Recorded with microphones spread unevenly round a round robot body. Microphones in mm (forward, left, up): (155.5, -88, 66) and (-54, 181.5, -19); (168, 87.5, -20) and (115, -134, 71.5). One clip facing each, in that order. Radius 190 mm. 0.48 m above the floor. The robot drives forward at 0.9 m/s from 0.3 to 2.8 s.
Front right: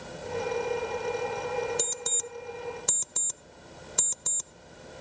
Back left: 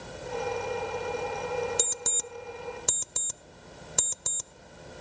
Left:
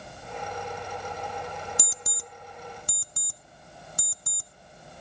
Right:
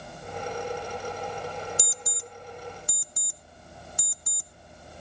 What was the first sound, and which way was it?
An alarm clock, 50° left.